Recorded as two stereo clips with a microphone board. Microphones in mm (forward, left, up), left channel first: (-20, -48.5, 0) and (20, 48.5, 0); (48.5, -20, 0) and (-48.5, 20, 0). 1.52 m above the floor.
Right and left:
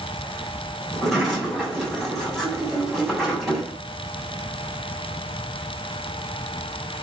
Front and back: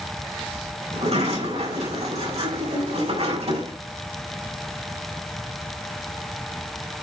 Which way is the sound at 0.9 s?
160° left.